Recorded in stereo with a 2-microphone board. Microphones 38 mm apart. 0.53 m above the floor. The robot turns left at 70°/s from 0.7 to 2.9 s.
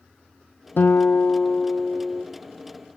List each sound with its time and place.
0.8 s a guitar: 85° left, 0.5 m; by 2.2 s 20° right, 0.5 m